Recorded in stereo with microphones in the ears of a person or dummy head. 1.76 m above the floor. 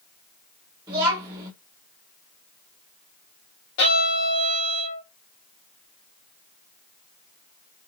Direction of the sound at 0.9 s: 25° right (ahead or behind).